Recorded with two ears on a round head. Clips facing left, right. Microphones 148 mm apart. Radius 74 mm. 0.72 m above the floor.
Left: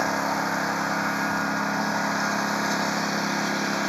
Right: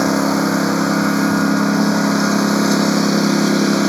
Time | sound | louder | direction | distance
0.0 | a lawn mower | right 11 dB | 70° right (ahead or behind) | ?